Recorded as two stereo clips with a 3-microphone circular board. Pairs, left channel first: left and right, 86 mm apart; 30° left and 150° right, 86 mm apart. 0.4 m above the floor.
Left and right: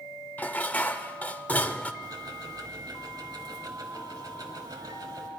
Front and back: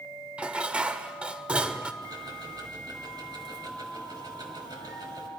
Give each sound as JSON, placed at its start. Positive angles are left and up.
{"t": 0.4, "sound": "dishes clattering", "azimuth_deg": 145, "distance_m": 0.5}
{"t": 2.0, "sound": "ticking", "azimuth_deg": -125, "distance_m": 1.5}